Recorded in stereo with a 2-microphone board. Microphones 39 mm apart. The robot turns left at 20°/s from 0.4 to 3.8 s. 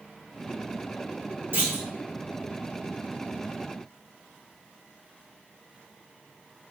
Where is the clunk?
60° right (ahead or behind), 1.7 m; by 1.9 s 65° right (ahead or behind), 1.7 m.